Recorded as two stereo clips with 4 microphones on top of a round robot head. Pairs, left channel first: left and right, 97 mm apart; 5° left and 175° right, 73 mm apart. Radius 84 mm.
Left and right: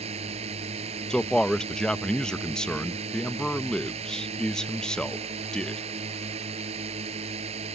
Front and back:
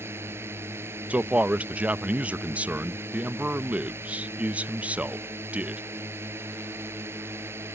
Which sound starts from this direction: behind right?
A drone, at 0.0 s.